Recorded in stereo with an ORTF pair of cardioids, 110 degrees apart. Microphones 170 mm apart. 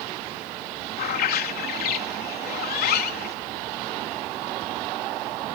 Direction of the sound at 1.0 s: 65° left.